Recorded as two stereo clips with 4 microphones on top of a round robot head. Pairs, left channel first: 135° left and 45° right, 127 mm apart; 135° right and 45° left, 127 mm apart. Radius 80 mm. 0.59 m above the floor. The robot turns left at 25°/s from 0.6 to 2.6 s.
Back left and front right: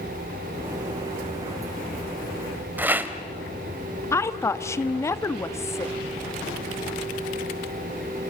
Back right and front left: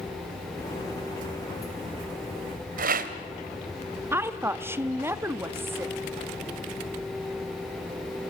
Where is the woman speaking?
95° left, 0.9 m.